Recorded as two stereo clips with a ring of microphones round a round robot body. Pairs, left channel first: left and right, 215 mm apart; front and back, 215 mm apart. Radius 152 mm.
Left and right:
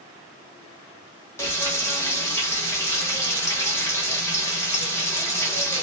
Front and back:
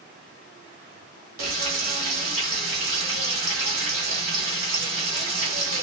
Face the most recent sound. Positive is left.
turn(degrees=165)